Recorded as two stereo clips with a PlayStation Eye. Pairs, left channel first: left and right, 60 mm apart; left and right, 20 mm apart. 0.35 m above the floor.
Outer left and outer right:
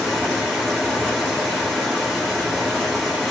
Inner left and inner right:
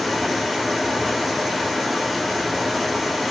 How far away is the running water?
About 2.5 m.